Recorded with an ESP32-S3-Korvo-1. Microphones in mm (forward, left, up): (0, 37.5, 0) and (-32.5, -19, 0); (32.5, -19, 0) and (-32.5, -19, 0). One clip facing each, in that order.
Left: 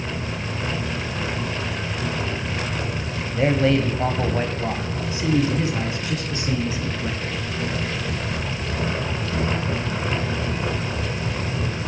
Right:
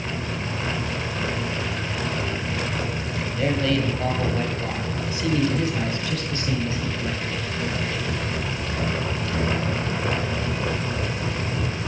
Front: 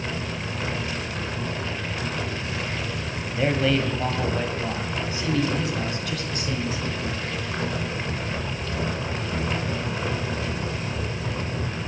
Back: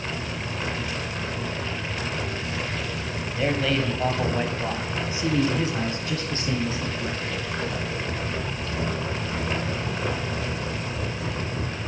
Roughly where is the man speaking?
Left.